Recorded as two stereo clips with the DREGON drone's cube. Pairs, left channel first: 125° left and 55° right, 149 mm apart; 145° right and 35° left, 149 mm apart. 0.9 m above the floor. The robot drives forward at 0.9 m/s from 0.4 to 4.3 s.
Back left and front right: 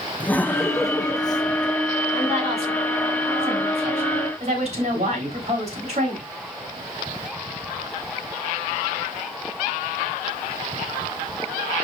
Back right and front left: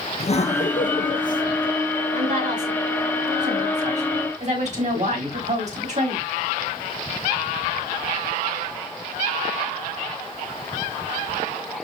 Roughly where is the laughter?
Behind.